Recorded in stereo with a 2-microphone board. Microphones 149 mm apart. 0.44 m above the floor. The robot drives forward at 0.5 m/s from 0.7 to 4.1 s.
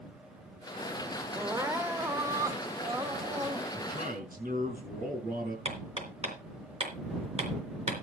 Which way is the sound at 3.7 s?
65° right (ahead or behind).